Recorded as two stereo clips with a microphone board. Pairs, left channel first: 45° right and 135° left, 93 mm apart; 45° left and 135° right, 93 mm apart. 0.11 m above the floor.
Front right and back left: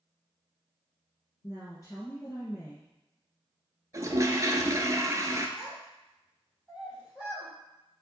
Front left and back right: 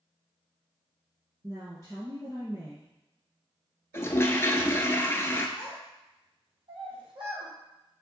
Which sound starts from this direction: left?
A toilet flushing, at 3.9 s.